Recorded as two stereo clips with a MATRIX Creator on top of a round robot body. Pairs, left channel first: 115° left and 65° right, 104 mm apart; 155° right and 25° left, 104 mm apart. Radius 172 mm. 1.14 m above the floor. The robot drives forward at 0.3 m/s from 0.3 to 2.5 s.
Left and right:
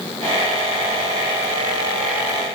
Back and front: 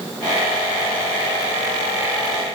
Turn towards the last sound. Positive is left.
No sound to turn to.